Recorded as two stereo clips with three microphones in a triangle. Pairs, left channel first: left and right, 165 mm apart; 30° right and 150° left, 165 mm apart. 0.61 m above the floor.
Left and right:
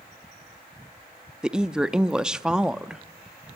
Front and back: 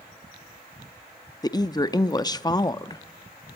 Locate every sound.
1.4 s a woman speaking: 10° right, 0.6 m